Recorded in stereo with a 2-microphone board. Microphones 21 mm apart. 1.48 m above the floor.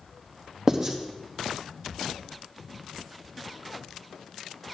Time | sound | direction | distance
0.7 | writing | 30° right (ahead or behind) | 1.2 m